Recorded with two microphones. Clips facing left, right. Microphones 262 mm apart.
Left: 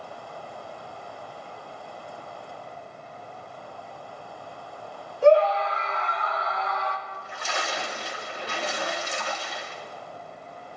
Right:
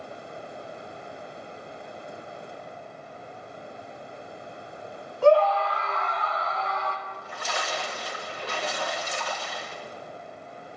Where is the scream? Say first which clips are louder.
Left 1 dB; 20° left (ahead or behind), 1.0 m; by 7.0 s 15° left (ahead or behind), 3 m.